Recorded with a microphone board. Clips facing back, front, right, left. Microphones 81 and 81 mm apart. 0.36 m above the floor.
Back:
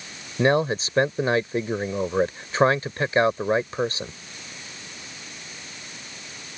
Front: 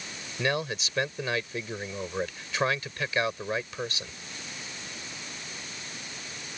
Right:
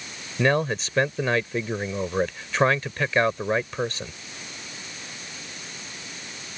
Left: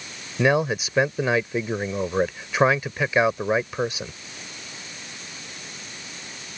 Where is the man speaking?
165° left.